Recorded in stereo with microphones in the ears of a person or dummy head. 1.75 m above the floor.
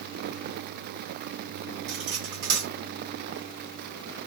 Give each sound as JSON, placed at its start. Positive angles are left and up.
{"t": 1.9, "sound": "cutlery clinking", "side_deg": -65, "distance_m": 2.5}